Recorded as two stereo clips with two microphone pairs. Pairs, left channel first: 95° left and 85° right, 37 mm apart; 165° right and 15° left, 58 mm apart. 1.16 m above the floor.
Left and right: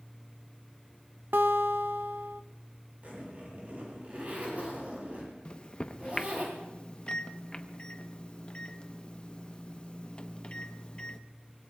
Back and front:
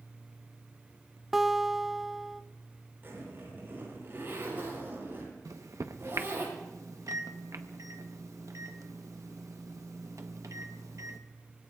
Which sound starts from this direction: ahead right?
A zipper, at 3.0 s.